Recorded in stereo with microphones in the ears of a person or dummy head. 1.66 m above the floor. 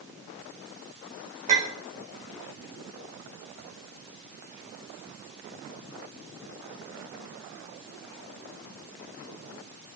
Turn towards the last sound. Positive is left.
turn(degrees=-40)  # may be behind; listen again after turning